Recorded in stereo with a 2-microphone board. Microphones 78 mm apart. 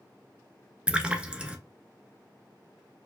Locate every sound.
0.9 s a splash: 15° right (ahead or behind), 0.7 m